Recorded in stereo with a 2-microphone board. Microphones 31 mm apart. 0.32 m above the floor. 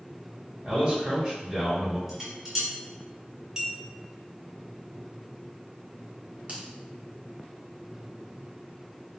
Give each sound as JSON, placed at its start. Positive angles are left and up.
{"t": 0.6, "sound": "a man speaking", "side_deg": -15, "distance_m": 1.0}
{"t": 2.1, "sound": "dishes clattering", "side_deg": -5, "distance_m": 2.0}
{"t": 3.6, "sound": "a clink", "side_deg": -20, "distance_m": 0.6}
{"t": 6.5, "sound": "a finger snap", "side_deg": -40, "distance_m": 1.0}